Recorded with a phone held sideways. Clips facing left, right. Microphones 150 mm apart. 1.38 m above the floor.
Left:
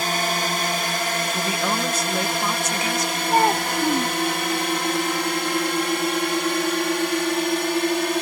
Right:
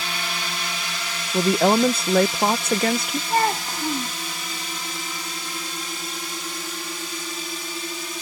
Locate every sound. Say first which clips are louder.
0.0 s a drone: left 7 dB; 50° left (ahead or behind); by 8.2 s 70° left (ahead or behind)
1.3 s a woman speaking: right 12 dB; 60° right (ahead or behind)
3.3 s a child speaking: left 3 dB; 15° left (ahead or behind)